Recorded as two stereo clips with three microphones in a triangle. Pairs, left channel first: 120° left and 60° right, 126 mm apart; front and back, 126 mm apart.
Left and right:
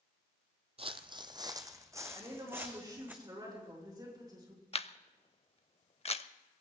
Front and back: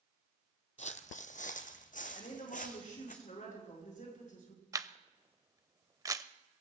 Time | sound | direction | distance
0.8 | footsteps | 20° right | 0.7 m
2.1 | a woman speaking | straight ahead | 5 m
4.7 | a camera shutter | 125° left | 0.5 m